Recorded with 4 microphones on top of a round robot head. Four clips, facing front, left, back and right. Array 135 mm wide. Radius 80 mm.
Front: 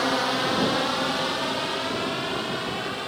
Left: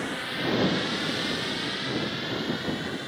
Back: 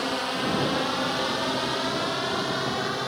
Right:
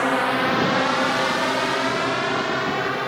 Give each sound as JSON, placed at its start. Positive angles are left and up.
{"t": 0.0, "sound": "a drone", "azimuth_deg": -70}